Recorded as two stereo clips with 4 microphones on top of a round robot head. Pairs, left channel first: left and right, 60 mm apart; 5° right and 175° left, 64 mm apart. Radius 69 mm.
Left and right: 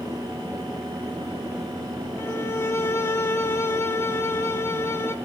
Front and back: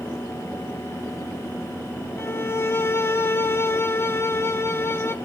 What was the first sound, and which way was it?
A violin, 45° left.